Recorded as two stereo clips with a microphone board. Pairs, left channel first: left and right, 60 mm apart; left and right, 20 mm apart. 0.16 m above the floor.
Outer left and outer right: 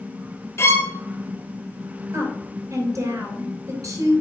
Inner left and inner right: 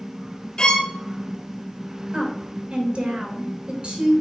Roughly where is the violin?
Left.